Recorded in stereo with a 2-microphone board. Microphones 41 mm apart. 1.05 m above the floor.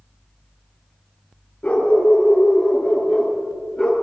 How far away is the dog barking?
About 6 m.